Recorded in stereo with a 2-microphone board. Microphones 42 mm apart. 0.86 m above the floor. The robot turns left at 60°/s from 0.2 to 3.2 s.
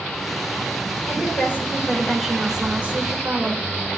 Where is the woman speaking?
75° left, 2.5 m; by 3.5 s 55° right, 2.5 m.